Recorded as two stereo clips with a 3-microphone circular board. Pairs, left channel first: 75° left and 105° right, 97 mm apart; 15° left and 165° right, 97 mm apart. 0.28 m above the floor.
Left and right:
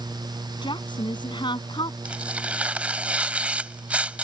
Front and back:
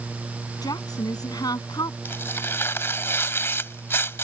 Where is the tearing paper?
35° right.